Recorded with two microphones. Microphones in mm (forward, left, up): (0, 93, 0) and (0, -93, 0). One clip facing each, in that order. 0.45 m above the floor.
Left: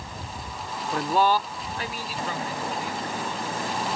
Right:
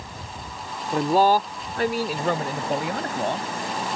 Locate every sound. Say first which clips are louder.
0.9 s a man speaking: right 4 dB; 20° right (ahead or behind); by 3.5 s 70° right (ahead or behind)